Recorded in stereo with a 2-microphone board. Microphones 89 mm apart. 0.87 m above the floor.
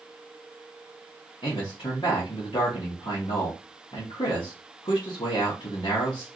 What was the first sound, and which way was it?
A man speaking, 70° left (ahead or behind).